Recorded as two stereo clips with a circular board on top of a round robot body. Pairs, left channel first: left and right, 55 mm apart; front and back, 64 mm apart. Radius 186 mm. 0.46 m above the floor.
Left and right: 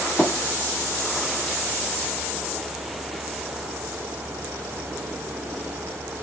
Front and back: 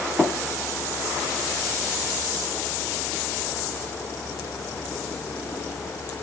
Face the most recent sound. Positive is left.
turn(degrees=115)